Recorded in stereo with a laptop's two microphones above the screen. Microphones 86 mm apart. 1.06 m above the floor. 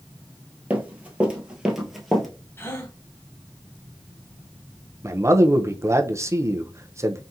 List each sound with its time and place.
0.7 s running footsteps: 20° right (ahead or behind), 1.1 m; by 2.3 s 5° left (ahead or behind), 1.0 m
2.6 s a gasp: 25° left (ahead or behind), 0.9 m
5.0 s a man speaking: 35° right (ahead or behind), 0.5 m